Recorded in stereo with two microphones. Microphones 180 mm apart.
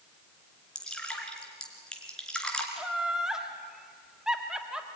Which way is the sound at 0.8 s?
5° left (ahead or behind).